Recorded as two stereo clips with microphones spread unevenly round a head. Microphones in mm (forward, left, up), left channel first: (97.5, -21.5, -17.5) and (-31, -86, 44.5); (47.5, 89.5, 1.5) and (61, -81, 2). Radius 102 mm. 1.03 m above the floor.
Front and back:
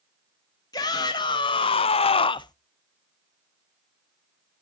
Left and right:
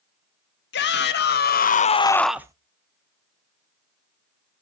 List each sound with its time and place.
0.7 s a shout: 90° left, 1.5 m; by 2.5 s 20° right, 0.7 m